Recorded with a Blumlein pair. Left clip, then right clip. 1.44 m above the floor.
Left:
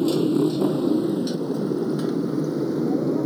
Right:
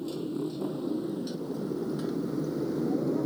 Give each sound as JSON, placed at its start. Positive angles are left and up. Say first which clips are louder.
{"t": 0.0, "sound": "a motorcycle", "louder": "left 13 dB", "azimuth_deg": 35}